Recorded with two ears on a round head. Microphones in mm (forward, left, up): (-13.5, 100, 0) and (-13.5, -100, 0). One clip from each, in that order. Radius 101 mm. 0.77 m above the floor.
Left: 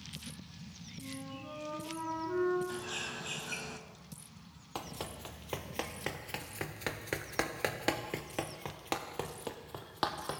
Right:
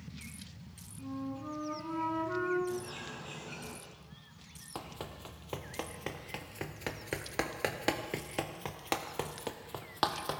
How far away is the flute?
About 9 m.